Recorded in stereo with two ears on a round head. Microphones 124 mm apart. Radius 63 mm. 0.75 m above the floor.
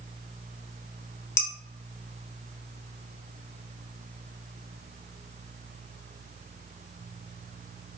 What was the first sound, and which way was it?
Dishes clattering, 20° left (ahead or behind).